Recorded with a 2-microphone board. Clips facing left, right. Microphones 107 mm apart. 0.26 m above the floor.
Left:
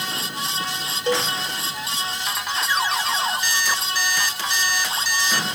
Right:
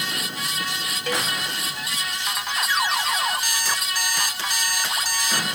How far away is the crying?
I don't hear crying.